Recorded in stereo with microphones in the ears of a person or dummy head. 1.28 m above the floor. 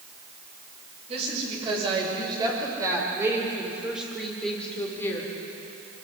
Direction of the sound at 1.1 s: 35° right (ahead or behind).